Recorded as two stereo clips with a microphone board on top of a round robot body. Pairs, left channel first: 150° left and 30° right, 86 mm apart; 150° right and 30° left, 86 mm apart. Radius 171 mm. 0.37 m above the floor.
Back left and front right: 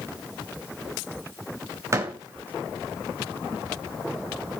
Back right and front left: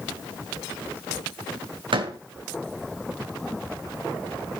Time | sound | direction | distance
1.9 | a door slam | 25° left | 3 m